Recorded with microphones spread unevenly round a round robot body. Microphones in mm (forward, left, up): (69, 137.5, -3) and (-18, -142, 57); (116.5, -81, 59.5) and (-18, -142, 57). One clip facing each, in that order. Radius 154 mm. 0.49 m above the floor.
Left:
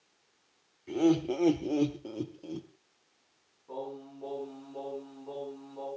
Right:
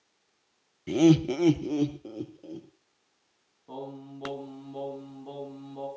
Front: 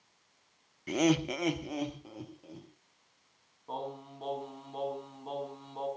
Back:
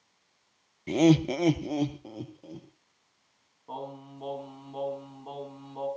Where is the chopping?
No chopping in this recording.